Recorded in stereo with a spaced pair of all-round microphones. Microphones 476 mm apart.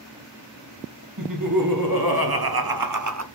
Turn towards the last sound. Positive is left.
turn(degrees=-35)  # may be behind; listen again after turning